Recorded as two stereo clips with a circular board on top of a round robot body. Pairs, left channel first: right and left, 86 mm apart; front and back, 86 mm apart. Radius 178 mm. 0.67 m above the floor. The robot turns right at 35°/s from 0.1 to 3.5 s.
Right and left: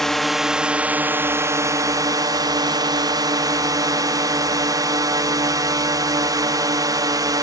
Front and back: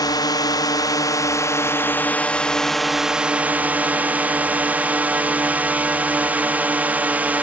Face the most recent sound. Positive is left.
turn(degrees=115)